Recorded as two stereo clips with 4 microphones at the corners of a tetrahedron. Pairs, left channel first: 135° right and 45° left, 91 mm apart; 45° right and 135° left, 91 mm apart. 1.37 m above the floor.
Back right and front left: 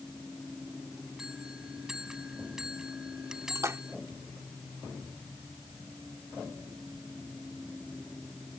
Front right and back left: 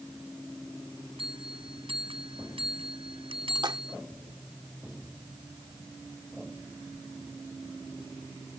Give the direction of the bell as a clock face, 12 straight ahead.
8 o'clock.